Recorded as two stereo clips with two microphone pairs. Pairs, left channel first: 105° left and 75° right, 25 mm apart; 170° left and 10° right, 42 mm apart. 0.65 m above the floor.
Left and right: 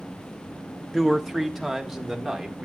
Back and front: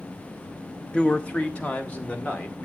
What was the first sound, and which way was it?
A man speaking, 155° right.